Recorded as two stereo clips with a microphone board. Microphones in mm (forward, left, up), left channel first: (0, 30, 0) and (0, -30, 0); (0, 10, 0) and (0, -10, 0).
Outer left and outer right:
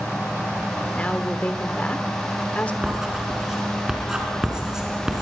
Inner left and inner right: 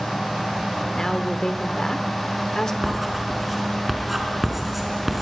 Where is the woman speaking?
25° left (ahead or behind), 1.2 m.